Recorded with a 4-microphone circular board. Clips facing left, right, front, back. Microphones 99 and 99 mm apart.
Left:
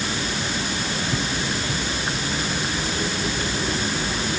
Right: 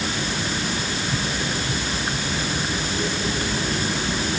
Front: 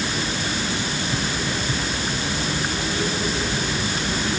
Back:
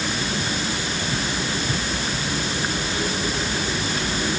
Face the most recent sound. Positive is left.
No sound to turn to.